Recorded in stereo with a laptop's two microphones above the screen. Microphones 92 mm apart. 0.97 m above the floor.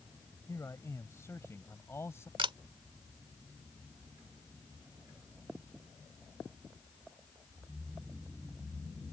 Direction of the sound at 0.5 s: 30° left (ahead or behind).